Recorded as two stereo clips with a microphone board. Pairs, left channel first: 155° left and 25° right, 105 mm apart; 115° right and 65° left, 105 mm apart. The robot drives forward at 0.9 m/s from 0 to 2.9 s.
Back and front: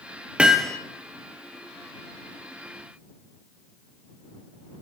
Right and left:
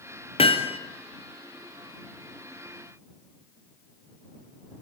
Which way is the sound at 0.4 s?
100° right.